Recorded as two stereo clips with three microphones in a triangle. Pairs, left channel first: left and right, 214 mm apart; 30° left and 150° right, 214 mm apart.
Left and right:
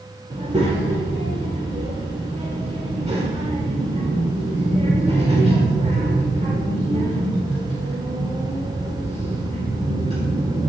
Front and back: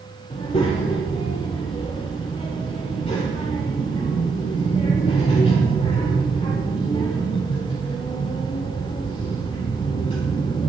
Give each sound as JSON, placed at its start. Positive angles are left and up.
{"t": 0.3, "sound": "a child speaking", "azimuth_deg": -30, "distance_m": 1.6}